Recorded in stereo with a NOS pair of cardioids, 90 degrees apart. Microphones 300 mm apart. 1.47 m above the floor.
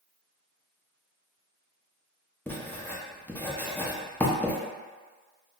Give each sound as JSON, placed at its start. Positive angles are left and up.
{"t": 2.5, "sound": "writing", "azimuth_deg": 5, "distance_m": 0.6}